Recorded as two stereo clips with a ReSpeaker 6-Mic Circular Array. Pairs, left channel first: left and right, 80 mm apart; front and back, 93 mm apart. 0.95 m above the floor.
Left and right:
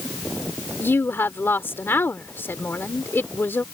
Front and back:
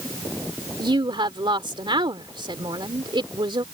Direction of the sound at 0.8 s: 150° left.